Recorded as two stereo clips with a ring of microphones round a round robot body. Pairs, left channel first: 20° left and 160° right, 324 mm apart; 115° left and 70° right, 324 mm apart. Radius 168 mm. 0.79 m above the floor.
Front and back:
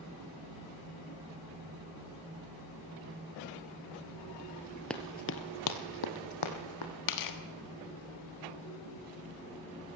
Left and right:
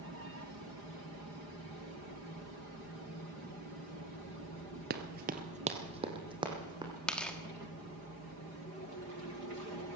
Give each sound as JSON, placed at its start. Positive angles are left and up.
{"t": 4.9, "sound": "running footsteps", "azimuth_deg": -65, "distance_m": 0.8}
{"t": 7.1, "sound": "tearing paper", "azimuth_deg": 25, "distance_m": 1.5}